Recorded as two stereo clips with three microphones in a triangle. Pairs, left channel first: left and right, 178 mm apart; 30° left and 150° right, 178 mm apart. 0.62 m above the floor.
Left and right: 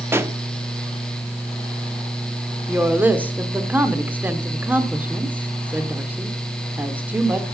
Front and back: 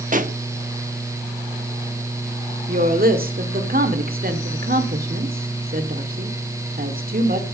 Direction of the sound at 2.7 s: 170° right.